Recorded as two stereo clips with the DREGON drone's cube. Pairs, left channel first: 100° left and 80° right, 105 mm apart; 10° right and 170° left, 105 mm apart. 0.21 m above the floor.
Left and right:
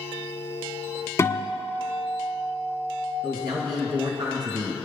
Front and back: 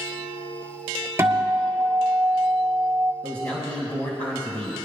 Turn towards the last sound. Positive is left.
turn(degrees=-85)